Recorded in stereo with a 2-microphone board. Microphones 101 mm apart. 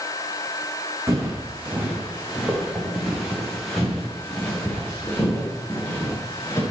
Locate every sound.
1.1 s footsteps: 25° right (ahead or behind), 4 m; by 6.6 s 25° left (ahead or behind), 6.5 m